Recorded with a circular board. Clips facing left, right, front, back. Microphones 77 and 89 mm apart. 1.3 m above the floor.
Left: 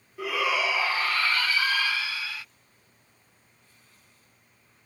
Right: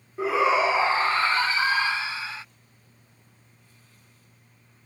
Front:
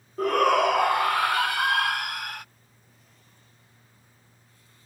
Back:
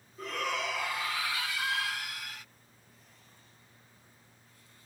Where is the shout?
30° right.